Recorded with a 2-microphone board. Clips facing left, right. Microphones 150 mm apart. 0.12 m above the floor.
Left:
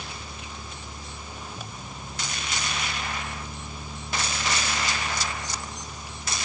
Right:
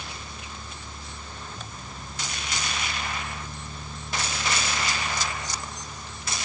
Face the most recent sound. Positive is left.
No sound to turn to.